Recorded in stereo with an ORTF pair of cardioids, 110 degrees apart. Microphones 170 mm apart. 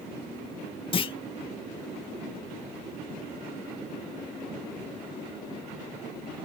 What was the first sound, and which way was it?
A clunk, 30° left.